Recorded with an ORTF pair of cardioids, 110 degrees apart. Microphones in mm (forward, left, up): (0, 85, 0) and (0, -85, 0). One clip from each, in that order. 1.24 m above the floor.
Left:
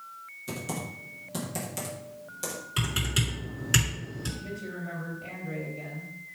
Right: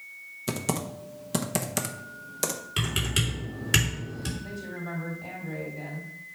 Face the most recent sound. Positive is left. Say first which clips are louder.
# right 1 dB
turn(degrees=-5)